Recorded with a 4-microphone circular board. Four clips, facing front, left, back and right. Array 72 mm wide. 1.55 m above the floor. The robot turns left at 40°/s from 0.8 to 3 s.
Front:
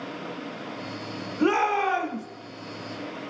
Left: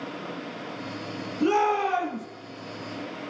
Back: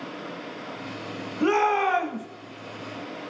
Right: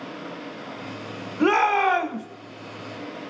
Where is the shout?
75° right, 1.5 m; by 2.2 s 110° right, 1.5 m.